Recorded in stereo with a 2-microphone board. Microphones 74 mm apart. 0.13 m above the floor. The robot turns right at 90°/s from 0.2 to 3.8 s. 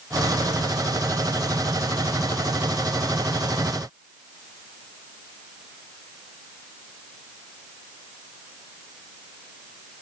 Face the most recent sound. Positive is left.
No sound to turn to.